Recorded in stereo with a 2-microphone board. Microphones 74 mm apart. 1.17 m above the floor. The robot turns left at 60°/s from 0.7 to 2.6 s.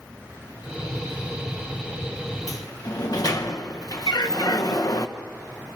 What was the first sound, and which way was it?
A sliding door, 45° left (ahead or behind).